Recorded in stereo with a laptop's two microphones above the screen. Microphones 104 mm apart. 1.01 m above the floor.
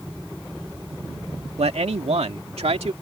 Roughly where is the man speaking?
Right.